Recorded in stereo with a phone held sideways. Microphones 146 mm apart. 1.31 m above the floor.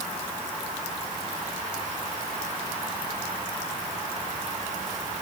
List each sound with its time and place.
Only background noise.